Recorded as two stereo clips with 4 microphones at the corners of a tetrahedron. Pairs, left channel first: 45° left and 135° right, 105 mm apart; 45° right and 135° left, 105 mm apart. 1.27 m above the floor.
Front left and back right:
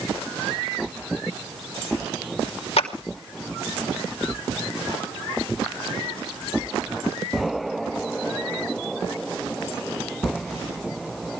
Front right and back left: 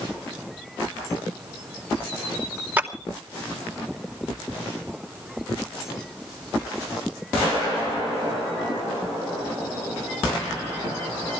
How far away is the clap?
About 2.5 m.